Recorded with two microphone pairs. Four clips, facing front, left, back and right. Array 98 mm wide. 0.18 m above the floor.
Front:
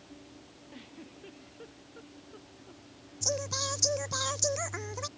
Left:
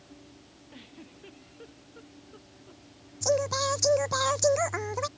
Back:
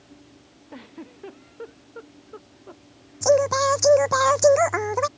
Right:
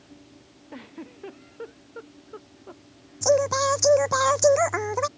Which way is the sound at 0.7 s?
140° right.